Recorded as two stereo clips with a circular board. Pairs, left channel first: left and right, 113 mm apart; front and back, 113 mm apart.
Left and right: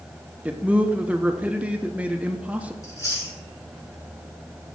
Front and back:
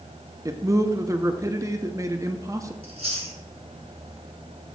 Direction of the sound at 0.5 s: 155° right.